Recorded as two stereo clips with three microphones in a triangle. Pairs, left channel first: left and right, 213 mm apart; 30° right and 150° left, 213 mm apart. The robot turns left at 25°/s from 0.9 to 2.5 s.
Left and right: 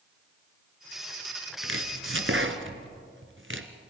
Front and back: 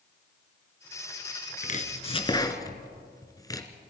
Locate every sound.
1.6 s chopping: 80° right, 1.7 m; by 3.7 s 105° right, 1.7 m